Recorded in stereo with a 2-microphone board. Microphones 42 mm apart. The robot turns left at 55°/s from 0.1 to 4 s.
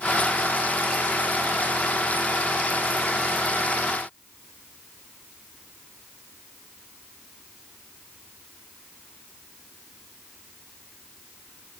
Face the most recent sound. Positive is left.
No sound to turn to.